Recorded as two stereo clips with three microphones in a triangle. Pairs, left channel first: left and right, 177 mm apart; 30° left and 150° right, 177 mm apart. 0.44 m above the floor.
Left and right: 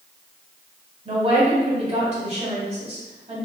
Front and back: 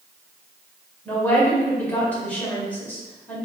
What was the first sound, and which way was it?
A woman speaking, 50° right.